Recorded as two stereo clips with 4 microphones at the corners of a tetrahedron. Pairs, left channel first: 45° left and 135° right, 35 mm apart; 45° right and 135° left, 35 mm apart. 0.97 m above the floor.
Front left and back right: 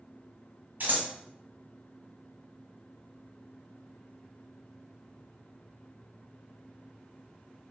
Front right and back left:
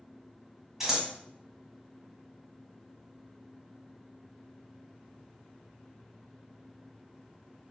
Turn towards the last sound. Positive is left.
turn(degrees=-145)